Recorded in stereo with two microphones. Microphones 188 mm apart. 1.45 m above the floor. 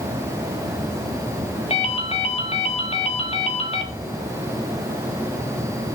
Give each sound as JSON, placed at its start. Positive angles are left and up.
{"t": 1.7, "sound": "a ringtone", "side_deg": 30, "distance_m": 1.0}